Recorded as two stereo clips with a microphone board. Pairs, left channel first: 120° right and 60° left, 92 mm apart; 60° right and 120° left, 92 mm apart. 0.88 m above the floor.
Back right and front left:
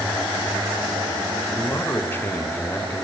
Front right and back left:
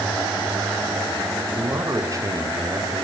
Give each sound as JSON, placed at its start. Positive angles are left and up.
{"t": 1.6, "sound": "a man speaking", "azimuth_deg": 175, "distance_m": 4.0}